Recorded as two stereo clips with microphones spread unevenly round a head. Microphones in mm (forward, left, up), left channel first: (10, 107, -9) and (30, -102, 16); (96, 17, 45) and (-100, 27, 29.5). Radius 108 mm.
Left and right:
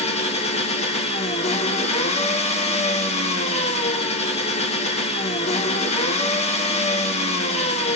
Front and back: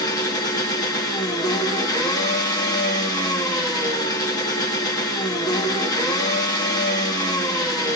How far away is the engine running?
About 0.9 m.